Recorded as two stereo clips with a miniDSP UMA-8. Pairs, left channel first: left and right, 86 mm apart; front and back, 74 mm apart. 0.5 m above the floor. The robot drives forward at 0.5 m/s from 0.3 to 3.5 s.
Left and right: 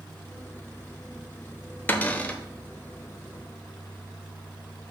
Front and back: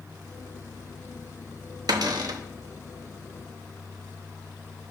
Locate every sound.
1.9 s a cupboard door: 155° left, 0.6 m; by 2.4 s 165° left, 0.8 m